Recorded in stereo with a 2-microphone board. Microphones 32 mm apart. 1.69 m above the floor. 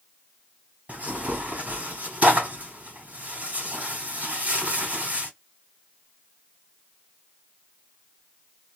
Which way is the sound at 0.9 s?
55° right (ahead or behind).